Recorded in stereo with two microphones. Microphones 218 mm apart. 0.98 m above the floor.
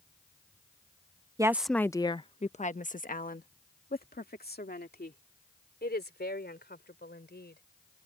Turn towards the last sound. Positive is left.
turn(degrees=50)  # may be behind; listen again after turning